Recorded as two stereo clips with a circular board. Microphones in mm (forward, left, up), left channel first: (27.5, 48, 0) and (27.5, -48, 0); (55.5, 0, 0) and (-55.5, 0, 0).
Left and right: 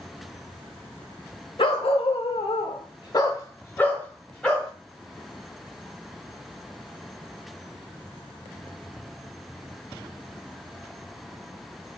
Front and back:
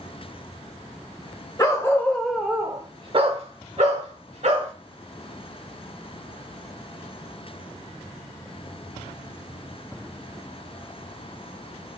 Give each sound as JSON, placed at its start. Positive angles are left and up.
{"t": 1.6, "sound": "a dog barking", "azimuth_deg": 60, "distance_m": 0.9}